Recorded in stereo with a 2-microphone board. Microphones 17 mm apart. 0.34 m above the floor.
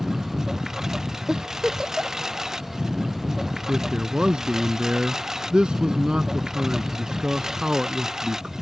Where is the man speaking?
65° right (ahead or behind).